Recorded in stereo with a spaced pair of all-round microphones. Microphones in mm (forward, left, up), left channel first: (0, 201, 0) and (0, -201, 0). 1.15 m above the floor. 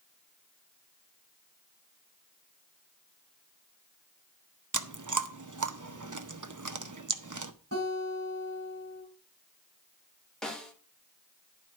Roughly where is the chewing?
Right.